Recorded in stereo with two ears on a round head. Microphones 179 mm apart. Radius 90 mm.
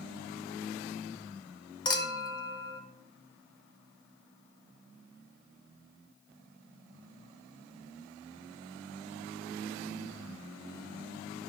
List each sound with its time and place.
1.9 s a clink: 20° left (ahead or behind), 0.9 m